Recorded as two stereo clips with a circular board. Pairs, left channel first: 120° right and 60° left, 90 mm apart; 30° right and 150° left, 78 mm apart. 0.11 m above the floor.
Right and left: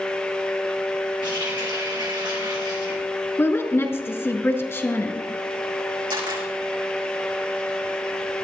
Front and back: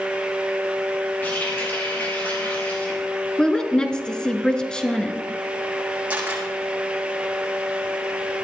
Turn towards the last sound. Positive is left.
turn(degrees=80)